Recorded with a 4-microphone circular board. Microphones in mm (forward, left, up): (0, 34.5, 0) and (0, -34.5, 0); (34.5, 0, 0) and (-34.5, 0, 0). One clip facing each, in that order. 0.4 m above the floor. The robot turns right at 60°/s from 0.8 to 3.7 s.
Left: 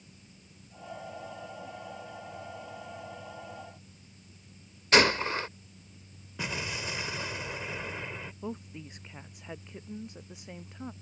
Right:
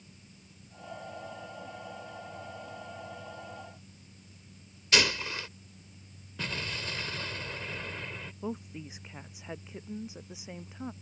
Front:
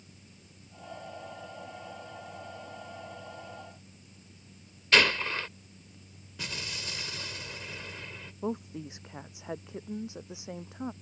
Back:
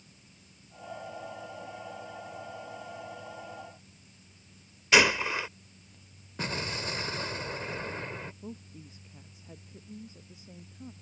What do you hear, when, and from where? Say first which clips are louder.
4.9 s a gunshot: left 6 dB, back 2 dB; 105° left
6.4 s an explosion: left 2 dB, back 6 dB; 160° left
8.4 s a woman speaking: right 4 dB, front 10 dB; 5° right